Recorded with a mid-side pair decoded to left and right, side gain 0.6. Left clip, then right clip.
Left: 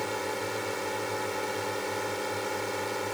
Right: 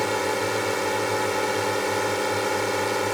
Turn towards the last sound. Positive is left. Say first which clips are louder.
# right 8 dB
turn(degrees=-40)